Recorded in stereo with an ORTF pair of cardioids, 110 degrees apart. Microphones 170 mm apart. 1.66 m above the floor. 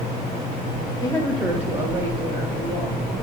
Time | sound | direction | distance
1.0 | a woman speaking | 25° left | 0.5 m